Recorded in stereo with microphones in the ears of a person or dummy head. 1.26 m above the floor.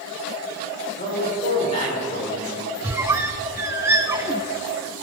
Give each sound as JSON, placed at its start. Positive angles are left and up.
{"t": 1.0, "sound": "a man speaking", "side_deg": 35, "distance_m": 4.0}
{"t": 2.8, "sound": "a squeak", "side_deg": -15, "distance_m": 0.6}